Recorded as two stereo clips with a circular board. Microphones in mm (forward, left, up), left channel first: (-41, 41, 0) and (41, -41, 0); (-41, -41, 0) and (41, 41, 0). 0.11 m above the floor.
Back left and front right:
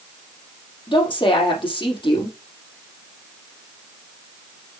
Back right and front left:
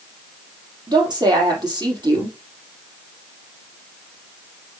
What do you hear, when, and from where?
0.9 s a woman speaking: 90° left, 4 m